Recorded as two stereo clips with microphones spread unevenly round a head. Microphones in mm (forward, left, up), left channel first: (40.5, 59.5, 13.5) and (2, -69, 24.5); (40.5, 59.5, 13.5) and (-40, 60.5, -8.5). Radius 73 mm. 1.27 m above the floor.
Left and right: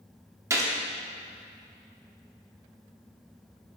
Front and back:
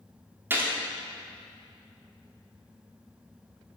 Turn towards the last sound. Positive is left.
turn(degrees=-105)